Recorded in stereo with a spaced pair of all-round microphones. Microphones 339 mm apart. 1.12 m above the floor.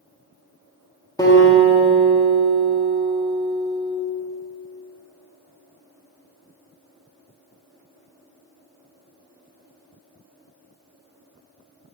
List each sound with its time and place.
1.2 s a guitar: 10° left (ahead or behind), 1.2 m